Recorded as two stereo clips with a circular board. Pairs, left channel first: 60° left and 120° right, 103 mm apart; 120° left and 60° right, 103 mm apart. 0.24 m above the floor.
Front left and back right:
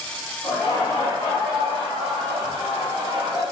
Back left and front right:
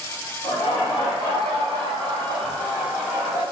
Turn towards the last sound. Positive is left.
turn(degrees=-115)